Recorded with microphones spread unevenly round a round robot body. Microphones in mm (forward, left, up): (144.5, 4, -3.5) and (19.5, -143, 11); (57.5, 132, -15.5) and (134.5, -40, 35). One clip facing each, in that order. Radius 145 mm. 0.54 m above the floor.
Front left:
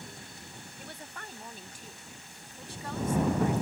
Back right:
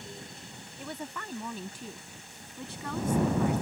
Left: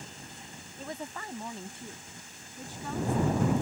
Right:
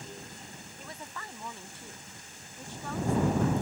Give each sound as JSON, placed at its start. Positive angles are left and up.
{"t": 0.8, "sound": "a woman speaking", "azimuth_deg": -175}